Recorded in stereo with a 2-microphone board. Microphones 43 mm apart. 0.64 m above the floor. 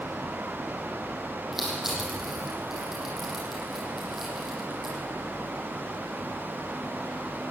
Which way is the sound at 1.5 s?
5° right (ahead or behind).